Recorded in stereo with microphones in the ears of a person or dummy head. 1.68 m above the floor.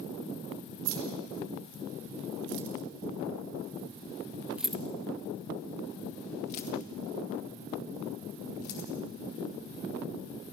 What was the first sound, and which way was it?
Keys jangling, 80° right.